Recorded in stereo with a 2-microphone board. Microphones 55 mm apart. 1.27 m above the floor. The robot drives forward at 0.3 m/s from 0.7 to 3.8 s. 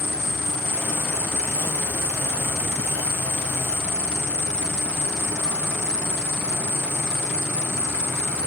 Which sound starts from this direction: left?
An insect, at 0.0 s.